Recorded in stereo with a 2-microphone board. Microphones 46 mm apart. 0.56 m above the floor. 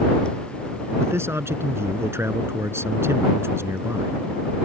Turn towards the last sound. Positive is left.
turn(degrees=-70)  # may be behind; listen again after turning